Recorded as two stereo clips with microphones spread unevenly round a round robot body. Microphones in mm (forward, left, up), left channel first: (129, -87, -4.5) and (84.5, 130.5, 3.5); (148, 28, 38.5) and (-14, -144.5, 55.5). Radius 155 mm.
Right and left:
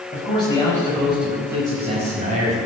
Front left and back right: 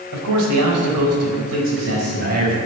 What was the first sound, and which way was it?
A man speaking, 150° right.